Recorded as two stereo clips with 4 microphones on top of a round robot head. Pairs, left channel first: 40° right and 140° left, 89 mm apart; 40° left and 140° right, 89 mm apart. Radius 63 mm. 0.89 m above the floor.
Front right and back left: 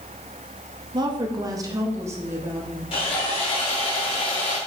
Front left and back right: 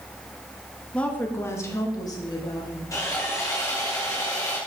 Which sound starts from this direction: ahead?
Sawing, at 2.9 s.